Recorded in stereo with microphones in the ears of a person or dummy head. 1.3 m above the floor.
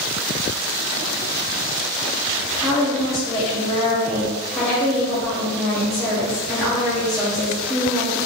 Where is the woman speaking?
5° left (ahead or behind), 0.9 m.